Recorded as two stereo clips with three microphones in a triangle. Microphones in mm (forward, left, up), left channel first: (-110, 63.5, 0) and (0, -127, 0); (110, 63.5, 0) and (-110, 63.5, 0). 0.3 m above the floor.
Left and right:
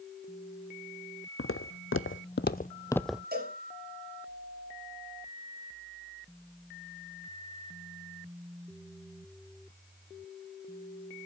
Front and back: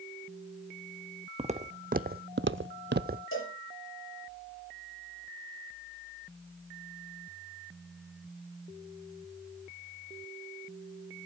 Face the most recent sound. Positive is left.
turn(degrees=-15)